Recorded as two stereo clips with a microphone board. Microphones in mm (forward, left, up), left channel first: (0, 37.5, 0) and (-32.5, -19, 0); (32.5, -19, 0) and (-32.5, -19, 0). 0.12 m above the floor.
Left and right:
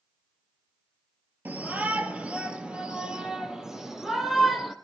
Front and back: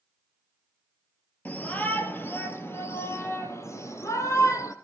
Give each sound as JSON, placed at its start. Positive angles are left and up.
{"t": 1.4, "sound": "a shout", "azimuth_deg": -60, "distance_m": 2.5}